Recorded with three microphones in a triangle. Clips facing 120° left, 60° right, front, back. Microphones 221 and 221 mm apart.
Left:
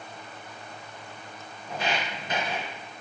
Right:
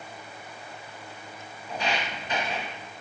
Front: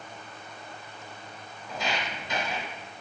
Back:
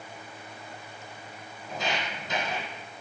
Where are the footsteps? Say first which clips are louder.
Even, even; 155° left, 1.9 m.